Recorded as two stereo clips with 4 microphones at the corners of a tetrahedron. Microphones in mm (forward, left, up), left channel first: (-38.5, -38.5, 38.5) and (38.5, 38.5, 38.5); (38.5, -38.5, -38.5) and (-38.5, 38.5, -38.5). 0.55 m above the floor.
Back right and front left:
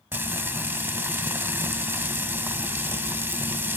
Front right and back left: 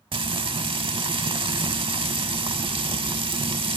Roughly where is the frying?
Left.